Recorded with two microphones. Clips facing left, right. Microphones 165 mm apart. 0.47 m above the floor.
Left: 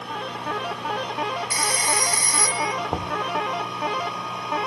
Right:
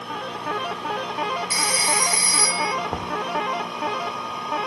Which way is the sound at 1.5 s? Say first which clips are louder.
Even; 45° left (ahead or behind).